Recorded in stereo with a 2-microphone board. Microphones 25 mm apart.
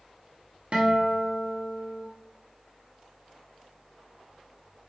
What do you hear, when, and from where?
0.7 s a guitar: 50° right (ahead or behind), 0.7 m